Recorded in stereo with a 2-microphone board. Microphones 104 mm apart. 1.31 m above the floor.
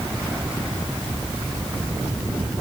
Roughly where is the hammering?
No hammering in this recording.